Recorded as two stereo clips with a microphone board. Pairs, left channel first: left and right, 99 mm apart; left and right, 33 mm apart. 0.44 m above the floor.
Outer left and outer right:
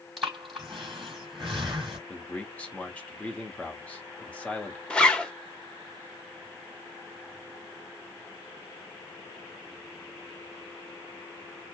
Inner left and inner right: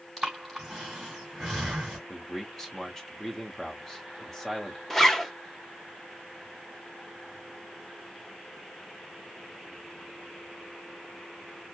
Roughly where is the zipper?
Centre.